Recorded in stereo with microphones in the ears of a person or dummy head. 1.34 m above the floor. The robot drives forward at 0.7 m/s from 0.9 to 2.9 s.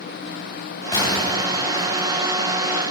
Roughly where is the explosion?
Left.